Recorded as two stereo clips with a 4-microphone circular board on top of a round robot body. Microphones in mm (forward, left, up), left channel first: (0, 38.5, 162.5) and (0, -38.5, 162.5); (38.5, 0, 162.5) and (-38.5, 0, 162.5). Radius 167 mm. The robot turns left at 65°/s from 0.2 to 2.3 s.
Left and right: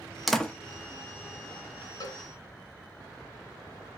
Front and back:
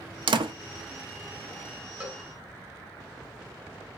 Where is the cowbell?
115° left, 1.7 m; by 2.2 s 100° left, 1.7 m.